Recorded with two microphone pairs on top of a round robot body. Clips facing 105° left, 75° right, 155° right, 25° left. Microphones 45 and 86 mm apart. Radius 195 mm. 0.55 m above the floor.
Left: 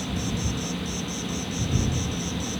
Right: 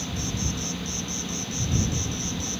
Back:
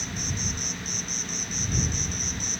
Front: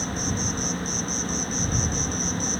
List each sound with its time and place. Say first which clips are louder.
0.0 s an insect: left 2 dB, front 6 dB; 20° left